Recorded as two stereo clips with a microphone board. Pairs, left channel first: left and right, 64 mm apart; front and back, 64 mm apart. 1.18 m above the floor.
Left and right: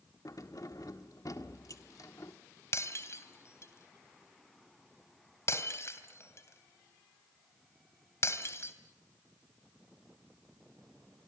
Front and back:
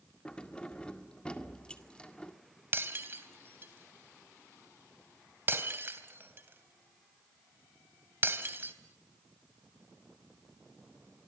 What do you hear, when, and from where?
0.2 s keys jangling: 75° left, 1.9 m
2.7 s breaking glass: 130° left, 3 m